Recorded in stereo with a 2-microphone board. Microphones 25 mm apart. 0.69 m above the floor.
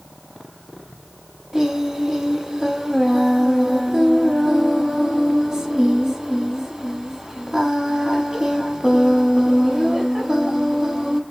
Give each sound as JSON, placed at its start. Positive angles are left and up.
{"t": 1.5, "sound": "singing", "side_deg": -20, "distance_m": 0.7}